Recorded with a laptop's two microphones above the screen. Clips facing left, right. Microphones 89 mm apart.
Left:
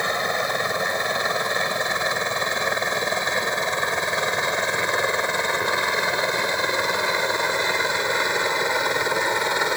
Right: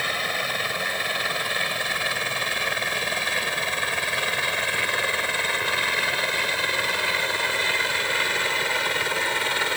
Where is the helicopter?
20° left (ahead or behind).